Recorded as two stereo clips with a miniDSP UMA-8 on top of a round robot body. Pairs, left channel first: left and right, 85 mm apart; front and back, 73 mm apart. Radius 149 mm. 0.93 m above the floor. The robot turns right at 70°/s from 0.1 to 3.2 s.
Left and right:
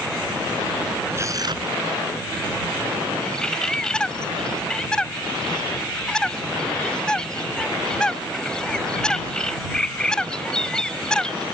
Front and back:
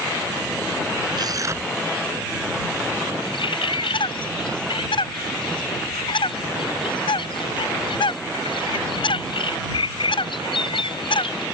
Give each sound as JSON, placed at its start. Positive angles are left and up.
{"t": 1.1, "sound": "tearing paper", "azimuth_deg": -155}
{"t": 3.2, "sound": "a bird", "azimuth_deg": 10}